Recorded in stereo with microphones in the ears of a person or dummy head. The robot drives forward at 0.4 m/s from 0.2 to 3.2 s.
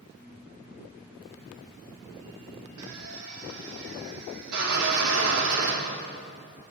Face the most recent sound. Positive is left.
turn(degrees=-85)